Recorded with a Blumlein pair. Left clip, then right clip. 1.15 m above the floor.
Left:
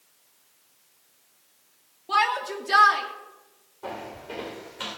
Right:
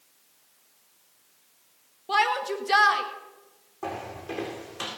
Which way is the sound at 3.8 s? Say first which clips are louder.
Right 2 dB; 50° right.